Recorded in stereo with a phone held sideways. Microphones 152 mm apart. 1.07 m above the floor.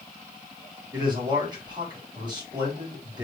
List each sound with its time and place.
0.9 s a man speaking: 30° right (ahead or behind), 4.5 m